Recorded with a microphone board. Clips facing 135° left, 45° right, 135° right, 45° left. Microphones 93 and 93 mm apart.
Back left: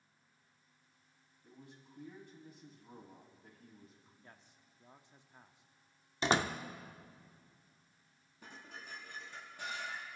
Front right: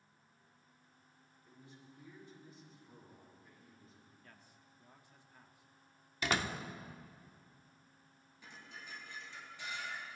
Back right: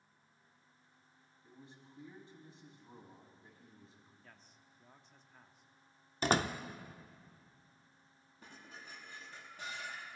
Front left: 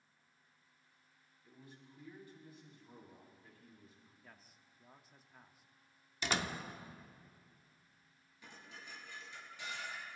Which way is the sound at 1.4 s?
160° left.